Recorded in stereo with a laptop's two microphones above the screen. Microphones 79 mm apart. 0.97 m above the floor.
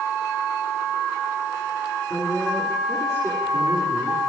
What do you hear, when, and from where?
2.1 s a woman speaking: 35° left (ahead or behind), 8.5 m